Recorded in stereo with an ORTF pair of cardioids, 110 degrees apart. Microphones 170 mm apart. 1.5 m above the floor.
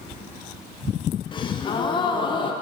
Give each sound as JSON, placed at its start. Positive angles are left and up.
{"t": 1.3, "sound": "a gasp", "azimuth_deg": 30, "distance_m": 0.6}